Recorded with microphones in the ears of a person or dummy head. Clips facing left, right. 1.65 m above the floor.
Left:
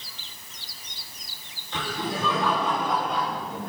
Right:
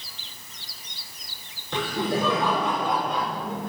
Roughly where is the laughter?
Right.